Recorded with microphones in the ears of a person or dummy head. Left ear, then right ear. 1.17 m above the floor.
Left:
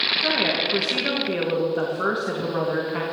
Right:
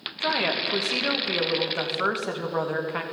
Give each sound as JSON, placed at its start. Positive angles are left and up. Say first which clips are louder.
{"t": 0.2, "sound": "a woman speaking", "louder": "left 3 dB", "side_deg": -30, "distance_m": 1.5}